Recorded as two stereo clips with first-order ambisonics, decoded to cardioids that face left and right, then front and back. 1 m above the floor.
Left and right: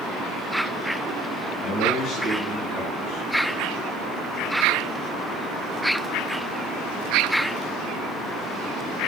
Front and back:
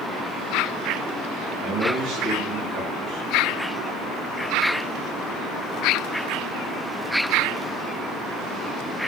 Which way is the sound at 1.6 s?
140° left.